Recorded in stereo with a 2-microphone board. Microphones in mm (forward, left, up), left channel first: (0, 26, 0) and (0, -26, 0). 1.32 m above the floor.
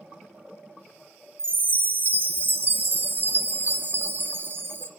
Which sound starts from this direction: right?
A chime, at 1.4 s.